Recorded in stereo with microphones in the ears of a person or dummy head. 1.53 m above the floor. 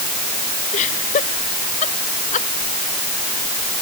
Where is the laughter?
35° left (ahead or behind); by 2.5 s 40° left (ahead or behind).